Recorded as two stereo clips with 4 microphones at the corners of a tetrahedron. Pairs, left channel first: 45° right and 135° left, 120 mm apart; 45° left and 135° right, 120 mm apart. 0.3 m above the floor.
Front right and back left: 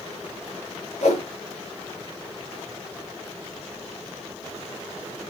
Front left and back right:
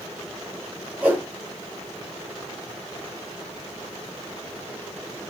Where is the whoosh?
60° right, 4 m.